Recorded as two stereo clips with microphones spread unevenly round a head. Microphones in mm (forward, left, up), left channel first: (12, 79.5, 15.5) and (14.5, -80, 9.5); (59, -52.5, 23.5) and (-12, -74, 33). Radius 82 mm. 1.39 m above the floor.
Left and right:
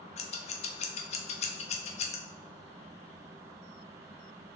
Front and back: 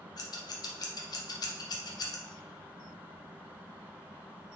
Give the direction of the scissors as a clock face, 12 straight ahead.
11 o'clock.